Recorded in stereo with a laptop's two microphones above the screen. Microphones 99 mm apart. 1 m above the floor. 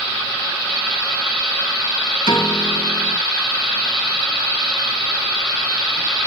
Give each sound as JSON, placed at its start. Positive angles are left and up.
{"t": 2.3, "sound": "a piano", "side_deg": 55, "distance_m": 3.0}